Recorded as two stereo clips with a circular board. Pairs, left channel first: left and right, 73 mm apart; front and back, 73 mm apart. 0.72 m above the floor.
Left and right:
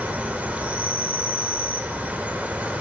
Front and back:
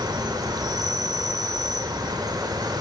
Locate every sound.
0.0 s an insect: 160° right, 1.5 m